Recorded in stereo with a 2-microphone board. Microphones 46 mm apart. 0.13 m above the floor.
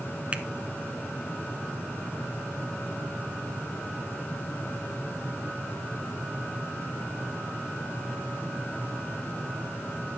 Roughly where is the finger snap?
Right.